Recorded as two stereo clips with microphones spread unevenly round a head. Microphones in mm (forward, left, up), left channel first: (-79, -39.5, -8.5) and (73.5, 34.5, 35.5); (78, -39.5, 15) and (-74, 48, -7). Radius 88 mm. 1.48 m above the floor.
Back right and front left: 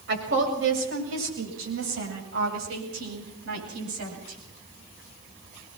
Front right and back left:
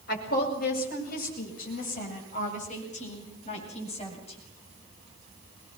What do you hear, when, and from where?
0.1 s a woman speaking: 5° left, 7.5 m; by 4.4 s 30° left, 9 m